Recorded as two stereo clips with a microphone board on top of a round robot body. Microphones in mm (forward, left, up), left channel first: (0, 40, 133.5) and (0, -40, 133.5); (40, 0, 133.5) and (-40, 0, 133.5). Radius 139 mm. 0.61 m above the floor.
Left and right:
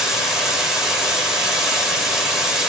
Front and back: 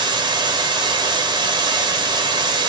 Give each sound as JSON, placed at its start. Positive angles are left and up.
{"t": 0.0, "sound": "running water", "azimuth_deg": -175, "distance_m": 1.2}